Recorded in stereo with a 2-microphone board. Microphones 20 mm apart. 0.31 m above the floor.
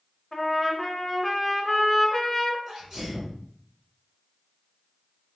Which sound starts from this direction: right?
A sneeze, at 2.7 s.